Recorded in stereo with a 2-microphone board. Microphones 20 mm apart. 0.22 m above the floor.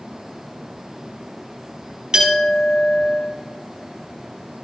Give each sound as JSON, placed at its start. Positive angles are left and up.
{"t": 2.1, "sound": "a clink", "side_deg": -40, "distance_m": 4.0}